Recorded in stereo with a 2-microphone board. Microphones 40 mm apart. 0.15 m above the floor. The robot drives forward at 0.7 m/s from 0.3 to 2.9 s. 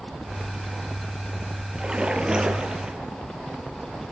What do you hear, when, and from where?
1.8 s a splash: 20° right (ahead or behind), 3 m